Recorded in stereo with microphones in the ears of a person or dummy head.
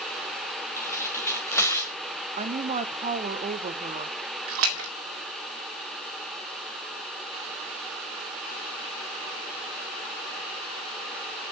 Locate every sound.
0.8 s tearing paper: 25° left (ahead or behind), 1.7 m
2.4 s a woman speaking: 25° right (ahead or behind), 0.9 m
4.5 s a splash: 80° right, 2 m